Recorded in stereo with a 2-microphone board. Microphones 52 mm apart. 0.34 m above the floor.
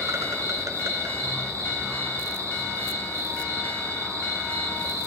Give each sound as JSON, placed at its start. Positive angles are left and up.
{"t": 0.0, "sound": "an insect", "side_deg": -85, "distance_m": 1.0}